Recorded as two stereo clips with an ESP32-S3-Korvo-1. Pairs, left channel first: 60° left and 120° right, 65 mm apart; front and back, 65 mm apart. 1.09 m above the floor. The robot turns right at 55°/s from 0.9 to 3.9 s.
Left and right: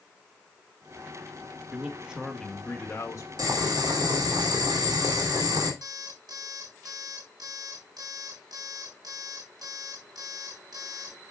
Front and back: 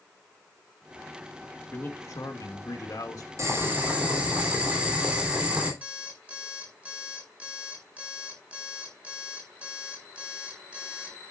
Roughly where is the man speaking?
Ahead right.